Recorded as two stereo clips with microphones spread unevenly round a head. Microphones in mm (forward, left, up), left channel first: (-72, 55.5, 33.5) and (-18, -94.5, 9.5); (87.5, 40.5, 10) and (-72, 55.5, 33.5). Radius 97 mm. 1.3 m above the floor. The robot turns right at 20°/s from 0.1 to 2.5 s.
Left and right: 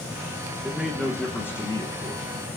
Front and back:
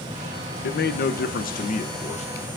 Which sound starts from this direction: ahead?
A man speaking, at 0.6 s.